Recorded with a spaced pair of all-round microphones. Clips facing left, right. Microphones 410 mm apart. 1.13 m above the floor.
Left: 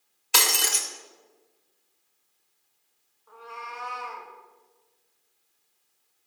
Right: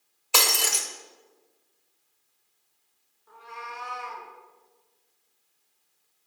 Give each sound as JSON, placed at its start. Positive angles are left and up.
{"t": 0.3, "sound": "breaking glass", "side_deg": 30, "distance_m": 1.0}
{"t": 3.3, "sound": "a cat meowing", "side_deg": -35, "distance_m": 1.9}